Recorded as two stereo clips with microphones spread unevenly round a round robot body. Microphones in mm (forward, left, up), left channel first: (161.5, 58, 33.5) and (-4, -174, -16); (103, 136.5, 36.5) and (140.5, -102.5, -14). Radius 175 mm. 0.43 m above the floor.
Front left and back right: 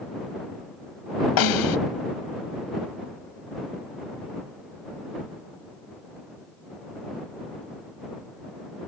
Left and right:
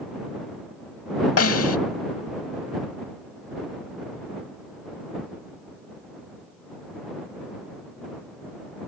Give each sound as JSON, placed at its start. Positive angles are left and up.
{"t": 1.4, "sound": "a snare drum", "azimuth_deg": 70}